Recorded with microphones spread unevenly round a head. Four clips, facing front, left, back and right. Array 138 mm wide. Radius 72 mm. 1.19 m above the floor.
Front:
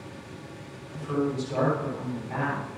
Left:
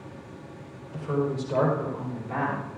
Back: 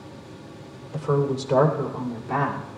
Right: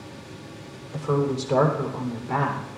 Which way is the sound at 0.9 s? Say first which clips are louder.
Right 3 dB, back 4 dB; 140° right.